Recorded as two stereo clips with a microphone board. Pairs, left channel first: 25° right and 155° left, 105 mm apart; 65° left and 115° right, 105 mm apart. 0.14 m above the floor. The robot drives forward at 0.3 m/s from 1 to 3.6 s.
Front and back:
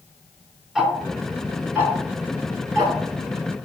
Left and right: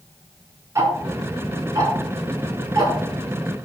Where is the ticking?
125° right, 0.7 m; by 2.9 s 160° right, 1.1 m.